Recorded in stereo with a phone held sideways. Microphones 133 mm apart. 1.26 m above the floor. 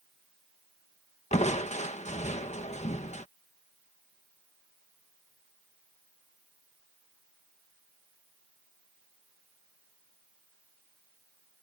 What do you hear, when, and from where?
1.3 s crushing: 60° left (ahead or behind)